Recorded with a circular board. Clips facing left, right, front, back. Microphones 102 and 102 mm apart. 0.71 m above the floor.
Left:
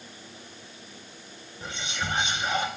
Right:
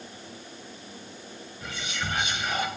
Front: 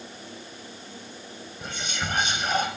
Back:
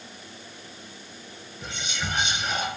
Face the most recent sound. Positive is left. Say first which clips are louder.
# left 1 dB, front 1 dB
turn(degrees=30)